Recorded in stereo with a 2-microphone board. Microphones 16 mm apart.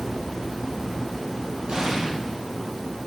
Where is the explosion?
85° right, 10 m.